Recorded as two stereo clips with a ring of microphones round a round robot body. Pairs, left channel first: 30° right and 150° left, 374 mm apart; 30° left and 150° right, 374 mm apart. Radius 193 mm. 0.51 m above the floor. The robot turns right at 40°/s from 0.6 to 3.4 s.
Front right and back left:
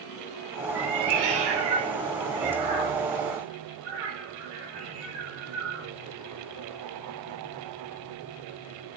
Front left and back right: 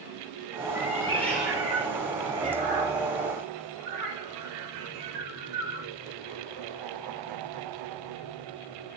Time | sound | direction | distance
0.8 | a cat meowing | 95° left | 1.2 m